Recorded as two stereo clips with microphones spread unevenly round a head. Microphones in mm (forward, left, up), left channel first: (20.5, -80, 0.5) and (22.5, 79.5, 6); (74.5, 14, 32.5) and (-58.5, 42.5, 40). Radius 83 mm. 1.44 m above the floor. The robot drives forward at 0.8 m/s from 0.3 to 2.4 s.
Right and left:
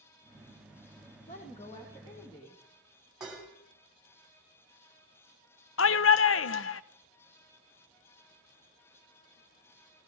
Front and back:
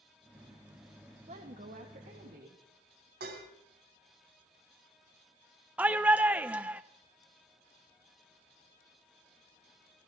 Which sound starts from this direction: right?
A shout, at 5.8 s.